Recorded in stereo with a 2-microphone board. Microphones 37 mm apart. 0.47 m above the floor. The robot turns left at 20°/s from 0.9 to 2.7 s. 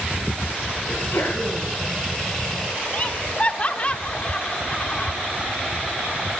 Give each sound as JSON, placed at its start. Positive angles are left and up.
{"t": 0.9, "sound": "a sneeze", "side_deg": 65, "distance_m": 5.5}
{"t": 2.9, "sound": "laughter", "side_deg": 30, "distance_m": 0.9}